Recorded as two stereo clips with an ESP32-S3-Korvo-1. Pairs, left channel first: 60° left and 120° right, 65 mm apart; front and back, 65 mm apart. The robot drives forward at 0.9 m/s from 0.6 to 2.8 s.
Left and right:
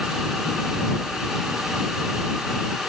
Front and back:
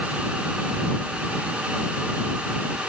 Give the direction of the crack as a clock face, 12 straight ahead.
No crack in this recording.